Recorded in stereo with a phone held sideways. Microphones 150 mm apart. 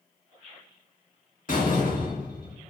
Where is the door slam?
65° left (ahead or behind), 1.6 m.